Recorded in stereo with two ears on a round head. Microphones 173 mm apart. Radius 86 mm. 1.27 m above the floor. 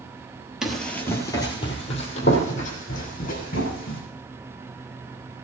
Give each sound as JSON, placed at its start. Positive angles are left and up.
{"t": 0.6, "sound": "running footsteps", "side_deg": -5, "distance_m": 1.7}